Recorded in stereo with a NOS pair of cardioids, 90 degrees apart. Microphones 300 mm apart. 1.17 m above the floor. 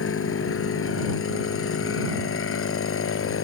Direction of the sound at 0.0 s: 45° left.